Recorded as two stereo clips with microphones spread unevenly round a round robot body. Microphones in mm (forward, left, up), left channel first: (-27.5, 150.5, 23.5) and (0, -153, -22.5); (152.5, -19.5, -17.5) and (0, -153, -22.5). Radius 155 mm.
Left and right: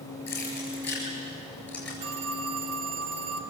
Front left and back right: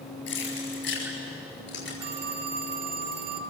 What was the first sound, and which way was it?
Keys jangling, 15° left.